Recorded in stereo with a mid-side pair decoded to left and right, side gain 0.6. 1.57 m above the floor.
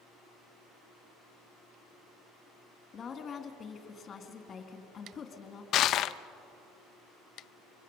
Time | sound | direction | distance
2.9 | a woman speaking | 35° left | 3 m
5.7 | crushing | 55° left | 0.7 m